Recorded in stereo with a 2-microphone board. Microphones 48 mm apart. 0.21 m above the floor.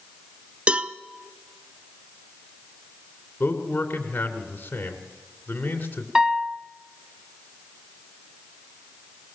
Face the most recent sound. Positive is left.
turn(degrees=-10)  # may be behind; listen again after turning